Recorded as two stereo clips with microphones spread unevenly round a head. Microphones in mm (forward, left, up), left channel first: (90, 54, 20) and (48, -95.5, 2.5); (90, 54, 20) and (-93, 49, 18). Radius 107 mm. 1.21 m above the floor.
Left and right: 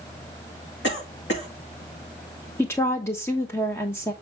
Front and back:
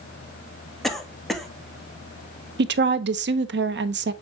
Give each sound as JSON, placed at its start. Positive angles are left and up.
{"t": 0.8, "sound": "a cough", "azimuth_deg": 90, "distance_m": 2.5}
{"t": 2.6, "sound": "a woman speaking", "azimuth_deg": 155, "distance_m": 0.9}